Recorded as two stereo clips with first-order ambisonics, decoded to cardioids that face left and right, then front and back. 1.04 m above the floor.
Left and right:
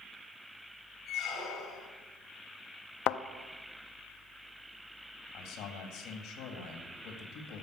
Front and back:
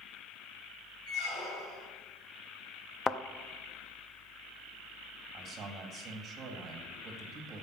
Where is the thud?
65° left, 0.5 m.